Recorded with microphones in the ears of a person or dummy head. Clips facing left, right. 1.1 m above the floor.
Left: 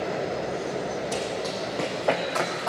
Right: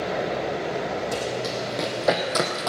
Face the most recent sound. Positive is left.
turn(degrees=-50)  # may be behind; listen again after turning